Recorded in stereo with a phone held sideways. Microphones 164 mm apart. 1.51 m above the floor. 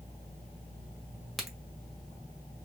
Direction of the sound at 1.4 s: Centre (ahead or behind).